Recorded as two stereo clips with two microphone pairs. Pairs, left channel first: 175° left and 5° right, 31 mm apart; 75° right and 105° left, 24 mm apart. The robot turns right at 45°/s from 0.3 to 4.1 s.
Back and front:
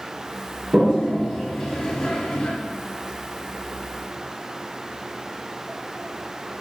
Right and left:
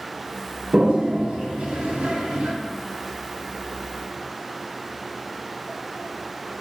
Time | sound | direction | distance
0.7 | a toilet flushing | 50° left | 2.5 m